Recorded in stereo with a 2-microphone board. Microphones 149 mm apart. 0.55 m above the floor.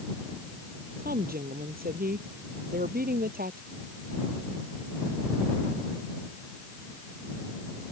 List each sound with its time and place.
1.0 s a woman speaking: 85° right